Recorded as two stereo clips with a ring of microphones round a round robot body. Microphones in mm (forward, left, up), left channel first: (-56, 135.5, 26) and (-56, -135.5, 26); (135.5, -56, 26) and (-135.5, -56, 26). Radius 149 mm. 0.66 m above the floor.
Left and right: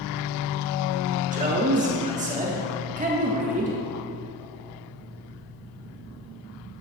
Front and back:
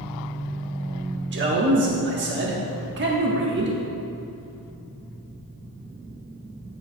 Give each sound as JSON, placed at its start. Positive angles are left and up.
{"t": 1.3, "sound": "a man speaking", "azimuth_deg": -145, "distance_m": 1.4}